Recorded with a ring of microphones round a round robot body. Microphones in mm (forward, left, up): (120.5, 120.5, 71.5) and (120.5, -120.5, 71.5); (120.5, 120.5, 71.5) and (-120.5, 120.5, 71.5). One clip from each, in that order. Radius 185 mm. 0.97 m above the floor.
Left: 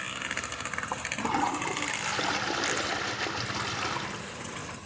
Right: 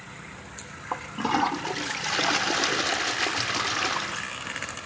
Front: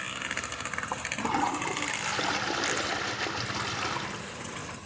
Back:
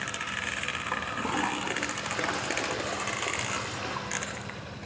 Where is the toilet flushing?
45° right, 0.8 m.